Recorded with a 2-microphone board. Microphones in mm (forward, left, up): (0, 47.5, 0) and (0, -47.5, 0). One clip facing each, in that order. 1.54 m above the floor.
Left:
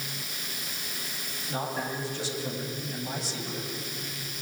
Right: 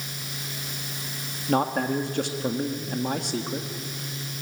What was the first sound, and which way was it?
A man speaking, 60° right (ahead or behind).